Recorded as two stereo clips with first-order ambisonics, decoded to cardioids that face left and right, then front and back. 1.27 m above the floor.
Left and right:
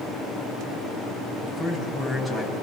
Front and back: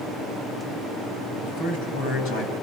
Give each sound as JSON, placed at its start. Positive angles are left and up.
{"t": 1.4, "sound": "a man speaking", "azimuth_deg": 0, "distance_m": 10.0}